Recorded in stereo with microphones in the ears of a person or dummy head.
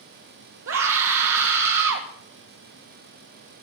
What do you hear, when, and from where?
0.7 s a scream: 70° right (ahead or behind), 1.3 m